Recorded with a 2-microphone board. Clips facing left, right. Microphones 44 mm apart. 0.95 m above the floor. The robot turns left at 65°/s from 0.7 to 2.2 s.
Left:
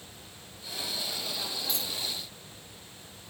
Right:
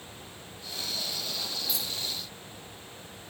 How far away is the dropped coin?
About 3.5 m.